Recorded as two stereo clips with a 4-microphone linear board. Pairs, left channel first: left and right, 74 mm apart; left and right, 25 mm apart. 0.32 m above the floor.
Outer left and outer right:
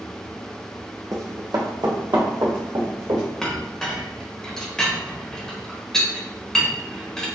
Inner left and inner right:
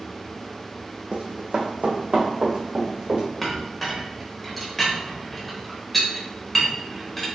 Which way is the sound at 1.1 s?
50° right (ahead or behind).